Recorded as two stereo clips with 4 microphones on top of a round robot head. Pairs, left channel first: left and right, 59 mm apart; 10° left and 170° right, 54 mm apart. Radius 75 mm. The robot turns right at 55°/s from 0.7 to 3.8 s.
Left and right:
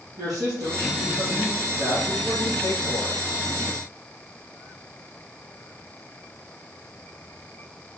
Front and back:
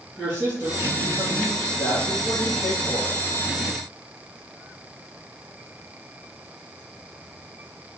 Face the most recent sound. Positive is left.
turn(degrees=105)